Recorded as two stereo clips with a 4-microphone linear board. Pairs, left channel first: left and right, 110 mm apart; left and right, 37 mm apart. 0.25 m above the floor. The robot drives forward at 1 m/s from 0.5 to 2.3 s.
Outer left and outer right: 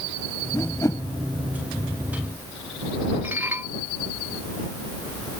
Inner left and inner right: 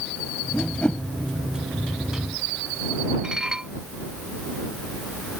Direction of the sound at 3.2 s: 20° right (ahead or behind).